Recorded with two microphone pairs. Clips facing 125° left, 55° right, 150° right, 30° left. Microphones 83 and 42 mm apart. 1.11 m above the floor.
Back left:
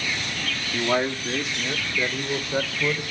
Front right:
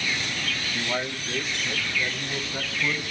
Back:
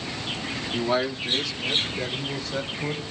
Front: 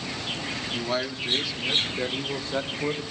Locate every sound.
0.7 s a man speaking: 140° left, 1.8 m; by 3.0 s 85° left, 4 m